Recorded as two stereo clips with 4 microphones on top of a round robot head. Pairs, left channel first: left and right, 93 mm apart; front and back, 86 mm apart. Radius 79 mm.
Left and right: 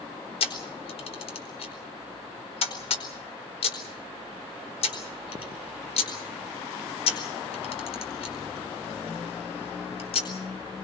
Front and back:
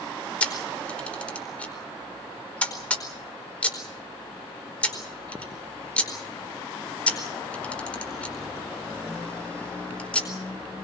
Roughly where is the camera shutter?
Left.